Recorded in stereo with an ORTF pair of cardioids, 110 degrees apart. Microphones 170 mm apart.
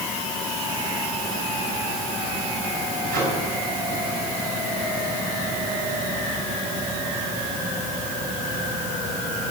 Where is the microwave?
65° right, 9 m.